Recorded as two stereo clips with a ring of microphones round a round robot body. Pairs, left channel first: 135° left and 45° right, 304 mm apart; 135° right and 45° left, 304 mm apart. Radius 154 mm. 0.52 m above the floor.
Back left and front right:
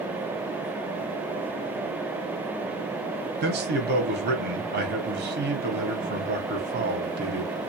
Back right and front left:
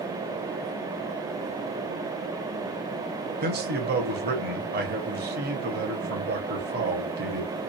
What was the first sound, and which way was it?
A man speaking, straight ahead.